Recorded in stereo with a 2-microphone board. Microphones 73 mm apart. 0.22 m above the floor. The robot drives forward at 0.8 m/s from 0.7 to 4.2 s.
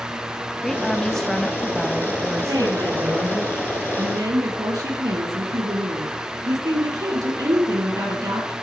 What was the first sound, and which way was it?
A woman speaking, 5° left (ahead or behind).